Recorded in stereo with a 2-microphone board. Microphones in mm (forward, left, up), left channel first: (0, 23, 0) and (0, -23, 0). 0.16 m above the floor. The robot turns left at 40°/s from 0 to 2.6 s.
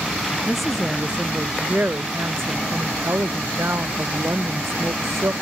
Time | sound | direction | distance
0.5 | a woman speaking | 5° left | ?